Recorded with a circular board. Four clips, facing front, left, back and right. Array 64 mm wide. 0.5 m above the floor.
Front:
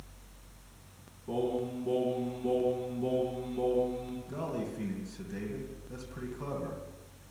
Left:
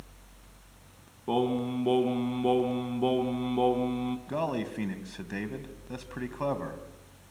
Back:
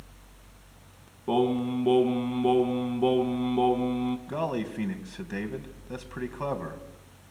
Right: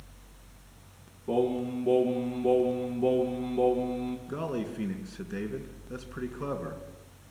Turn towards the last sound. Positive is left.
turn(degrees=135)